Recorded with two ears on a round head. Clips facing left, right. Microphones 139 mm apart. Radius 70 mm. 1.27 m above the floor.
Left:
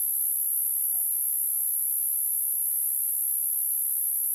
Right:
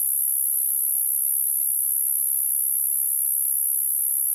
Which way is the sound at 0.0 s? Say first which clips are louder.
Right 2 dB; 65° right (ahead or behind).